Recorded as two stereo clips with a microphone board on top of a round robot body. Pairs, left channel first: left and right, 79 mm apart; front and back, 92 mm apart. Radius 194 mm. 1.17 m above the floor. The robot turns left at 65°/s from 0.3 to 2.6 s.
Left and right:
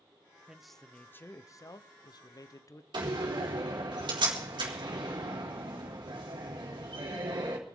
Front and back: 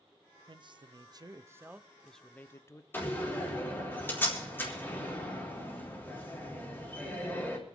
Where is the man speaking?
165° right, 0.9 m; by 2.8 s 55° left, 0.9 m.